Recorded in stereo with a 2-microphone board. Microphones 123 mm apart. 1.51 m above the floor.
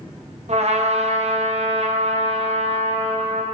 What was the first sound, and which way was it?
A trumpet, 60° right (ahead or behind).